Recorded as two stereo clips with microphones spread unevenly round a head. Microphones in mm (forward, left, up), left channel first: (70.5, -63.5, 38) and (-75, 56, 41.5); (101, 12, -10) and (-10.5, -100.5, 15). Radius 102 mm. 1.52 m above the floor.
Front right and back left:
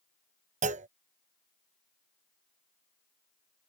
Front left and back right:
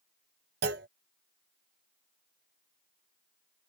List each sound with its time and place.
0.6 s a clunk: 165° right